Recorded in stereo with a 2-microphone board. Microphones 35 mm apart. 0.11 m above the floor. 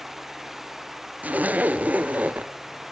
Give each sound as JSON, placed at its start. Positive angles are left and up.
{"t": 1.2, "sound": "a zipper", "side_deg": -45, "distance_m": 0.7}